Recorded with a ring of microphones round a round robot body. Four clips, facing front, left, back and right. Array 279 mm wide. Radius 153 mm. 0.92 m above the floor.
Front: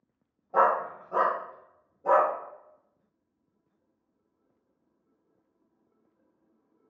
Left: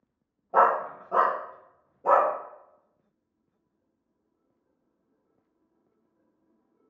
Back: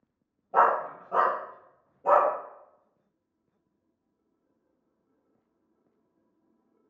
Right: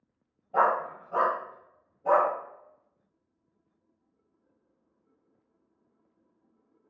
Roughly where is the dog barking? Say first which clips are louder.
Left 3 dB, back 1 dB; left.